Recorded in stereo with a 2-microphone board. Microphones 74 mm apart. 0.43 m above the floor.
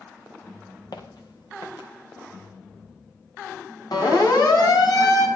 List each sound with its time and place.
0.9 s footsteps: 75° left (ahead or behind), 3 m
3.9 s a siren: 70° left (ahead or behind), 4.5 m; by 5.3 s 60° left (ahead or behind), 4 m